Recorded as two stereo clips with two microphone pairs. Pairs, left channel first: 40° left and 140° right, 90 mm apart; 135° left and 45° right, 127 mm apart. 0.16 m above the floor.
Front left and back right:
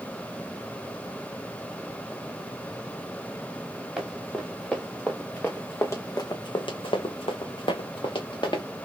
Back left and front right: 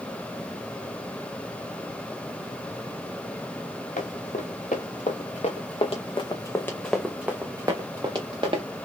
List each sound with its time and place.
4.0 s running footsteps: 130° left, 1.9 m; by 8.6 s 5° left, 1.6 m